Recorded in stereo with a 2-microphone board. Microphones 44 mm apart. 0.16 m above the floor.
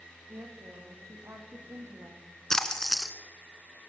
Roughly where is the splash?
Centre.